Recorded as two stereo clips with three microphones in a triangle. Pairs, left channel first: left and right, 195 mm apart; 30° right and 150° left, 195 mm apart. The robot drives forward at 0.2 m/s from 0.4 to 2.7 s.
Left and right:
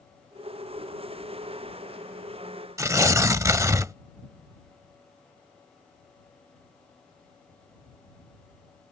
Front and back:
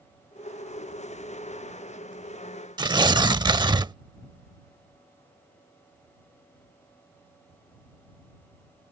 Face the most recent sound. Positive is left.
turn(degrees=-155)